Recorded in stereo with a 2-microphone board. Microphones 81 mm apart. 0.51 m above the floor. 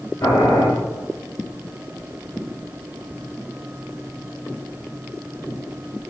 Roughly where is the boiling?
Left.